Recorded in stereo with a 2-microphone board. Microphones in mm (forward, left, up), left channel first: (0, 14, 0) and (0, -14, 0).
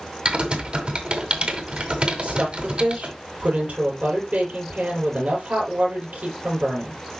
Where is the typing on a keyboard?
45° right (ahead or behind), 1.7 m.